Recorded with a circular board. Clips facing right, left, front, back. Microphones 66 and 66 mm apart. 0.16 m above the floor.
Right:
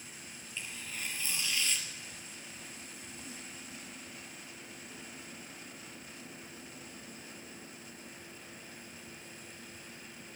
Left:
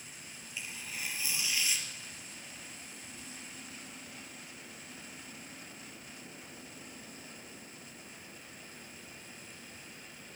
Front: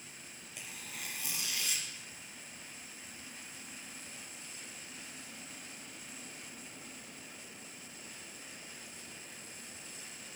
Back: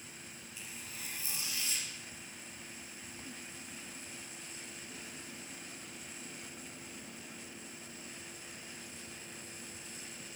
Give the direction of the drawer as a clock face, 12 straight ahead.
No drawer in this recording.